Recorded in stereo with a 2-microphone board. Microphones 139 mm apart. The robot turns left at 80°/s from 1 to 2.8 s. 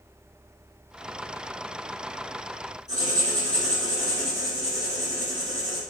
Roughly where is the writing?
Right.